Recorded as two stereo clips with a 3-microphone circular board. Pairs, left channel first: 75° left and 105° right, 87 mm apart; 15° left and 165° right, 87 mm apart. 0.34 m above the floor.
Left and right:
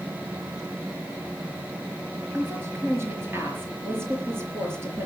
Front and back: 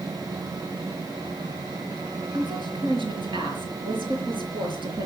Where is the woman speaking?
165° right, 5 m.